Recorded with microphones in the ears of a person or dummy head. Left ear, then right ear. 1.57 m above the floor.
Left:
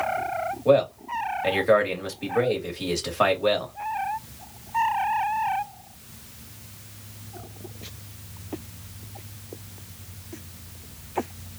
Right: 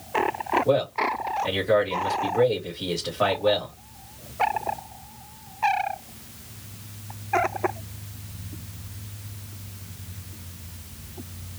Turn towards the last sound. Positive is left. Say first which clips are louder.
# left 2 dB
turn(degrees=65)  # may be behind; listen again after turning